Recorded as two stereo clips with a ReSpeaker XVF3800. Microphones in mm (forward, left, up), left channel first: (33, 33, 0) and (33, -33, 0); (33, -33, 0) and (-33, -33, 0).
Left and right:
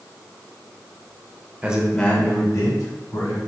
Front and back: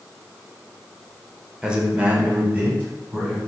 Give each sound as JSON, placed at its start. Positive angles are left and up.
{"t": 1.6, "sound": "a man speaking", "azimuth_deg": -120, "distance_m": 0.8}